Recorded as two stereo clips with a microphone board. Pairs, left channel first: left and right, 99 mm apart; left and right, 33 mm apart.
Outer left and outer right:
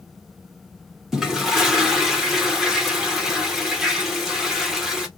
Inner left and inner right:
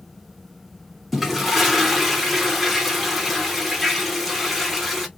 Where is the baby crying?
No baby crying in this recording.